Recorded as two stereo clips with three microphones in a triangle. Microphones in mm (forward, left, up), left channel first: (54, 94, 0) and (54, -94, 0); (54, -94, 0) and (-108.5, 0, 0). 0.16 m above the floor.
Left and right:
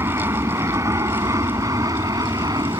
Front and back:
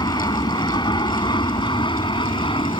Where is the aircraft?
40° right; by 2.8 s 45° right.